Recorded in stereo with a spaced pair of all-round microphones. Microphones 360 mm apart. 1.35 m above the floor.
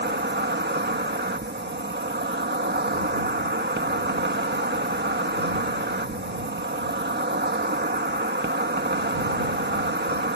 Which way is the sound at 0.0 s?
30° right (ahead or behind).